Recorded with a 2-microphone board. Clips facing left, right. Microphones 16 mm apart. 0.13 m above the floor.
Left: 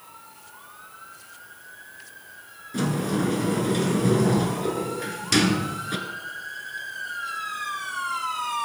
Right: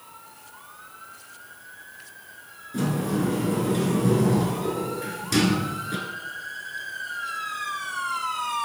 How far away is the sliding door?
About 0.7 m.